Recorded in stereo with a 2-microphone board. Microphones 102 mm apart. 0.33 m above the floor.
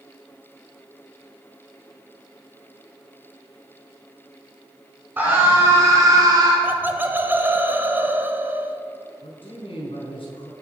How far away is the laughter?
About 1.2 m.